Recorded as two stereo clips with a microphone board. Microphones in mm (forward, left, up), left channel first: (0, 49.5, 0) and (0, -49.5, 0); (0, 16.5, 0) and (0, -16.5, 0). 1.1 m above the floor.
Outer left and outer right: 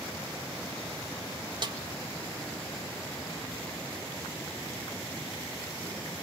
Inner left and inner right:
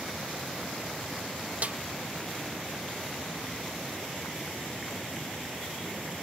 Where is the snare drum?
45° right (ahead or behind), 1.3 m.